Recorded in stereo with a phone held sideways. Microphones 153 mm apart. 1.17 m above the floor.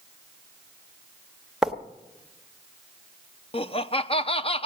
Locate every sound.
1.6 s writing: centre (ahead or behind), 1.3 m
3.5 s laughter: 40° left (ahead or behind), 0.8 m